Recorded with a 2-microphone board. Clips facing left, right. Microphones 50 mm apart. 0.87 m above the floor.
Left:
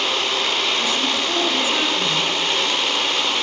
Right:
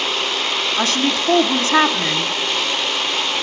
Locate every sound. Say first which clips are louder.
0.8 s a woman speaking: right 2 dB; 70° right (ahead or behind), 2 m